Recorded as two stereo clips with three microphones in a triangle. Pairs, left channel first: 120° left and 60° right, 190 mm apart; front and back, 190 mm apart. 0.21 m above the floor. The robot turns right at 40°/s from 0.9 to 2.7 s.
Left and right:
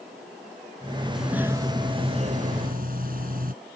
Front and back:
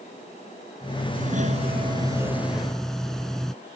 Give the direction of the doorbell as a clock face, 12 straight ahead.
5 o'clock.